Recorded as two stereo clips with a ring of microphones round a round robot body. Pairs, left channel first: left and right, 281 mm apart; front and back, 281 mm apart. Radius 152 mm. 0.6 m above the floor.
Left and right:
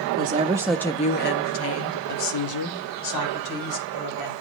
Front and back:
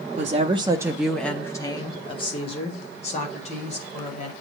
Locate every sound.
0.2 s a woman speaking: 125° right, 0.8 m; by 4.3 s 70° left, 3 m